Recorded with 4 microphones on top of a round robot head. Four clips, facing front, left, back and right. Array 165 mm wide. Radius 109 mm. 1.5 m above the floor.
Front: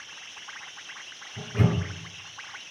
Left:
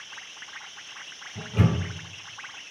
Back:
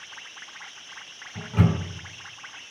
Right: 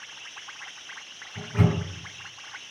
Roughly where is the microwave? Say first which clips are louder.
Even, back 2 dB; behind.